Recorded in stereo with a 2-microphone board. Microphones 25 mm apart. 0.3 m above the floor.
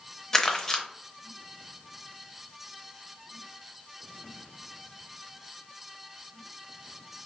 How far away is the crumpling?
About 0.7 m.